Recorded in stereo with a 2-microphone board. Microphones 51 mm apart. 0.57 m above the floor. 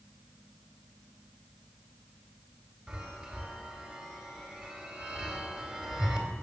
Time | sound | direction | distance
2.9 | a chime | 5° right (ahead or behind) | 2.5 m